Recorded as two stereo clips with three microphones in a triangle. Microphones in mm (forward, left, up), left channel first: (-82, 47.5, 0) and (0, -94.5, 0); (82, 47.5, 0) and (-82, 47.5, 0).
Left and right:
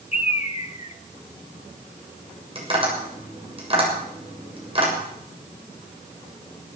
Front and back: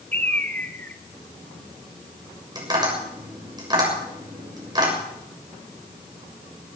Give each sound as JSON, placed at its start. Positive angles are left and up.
{"t": 0.1, "sound": "a bird", "azimuth_deg": 80, "distance_m": 1.2}
{"t": 2.5, "sound": "tapping", "azimuth_deg": -115, "distance_m": 7.0}